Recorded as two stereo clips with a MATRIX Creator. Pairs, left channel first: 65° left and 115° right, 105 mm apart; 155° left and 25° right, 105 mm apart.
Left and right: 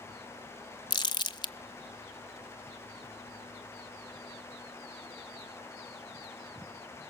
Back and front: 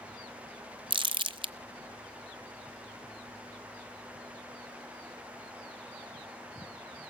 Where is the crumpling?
20° left, 0.8 m.